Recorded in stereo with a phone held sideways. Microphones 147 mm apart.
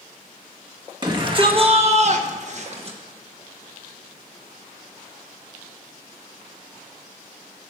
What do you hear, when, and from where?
1.0 s a shout: 30° right (ahead or behind), 2 m; by 3.0 s 40° right (ahead or behind), 1.3 m